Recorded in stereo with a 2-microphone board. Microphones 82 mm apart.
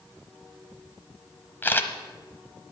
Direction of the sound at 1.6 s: 25° left (ahead or behind).